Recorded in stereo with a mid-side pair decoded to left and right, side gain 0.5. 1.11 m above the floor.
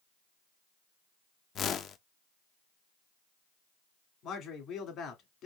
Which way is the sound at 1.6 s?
55° left.